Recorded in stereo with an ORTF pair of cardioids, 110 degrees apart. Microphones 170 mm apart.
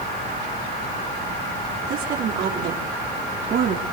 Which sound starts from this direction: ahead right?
A woman speaking, at 1.9 s.